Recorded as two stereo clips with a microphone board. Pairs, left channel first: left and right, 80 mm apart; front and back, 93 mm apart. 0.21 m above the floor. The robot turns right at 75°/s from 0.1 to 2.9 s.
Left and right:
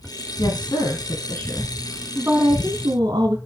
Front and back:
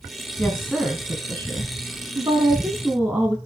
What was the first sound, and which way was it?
A woman speaking, 65° left.